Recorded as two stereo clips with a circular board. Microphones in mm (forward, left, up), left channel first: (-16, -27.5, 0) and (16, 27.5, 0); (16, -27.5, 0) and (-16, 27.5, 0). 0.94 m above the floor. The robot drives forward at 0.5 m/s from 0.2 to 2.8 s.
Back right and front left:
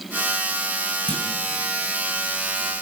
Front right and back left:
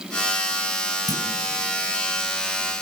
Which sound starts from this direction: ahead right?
A clunk, at 1.1 s.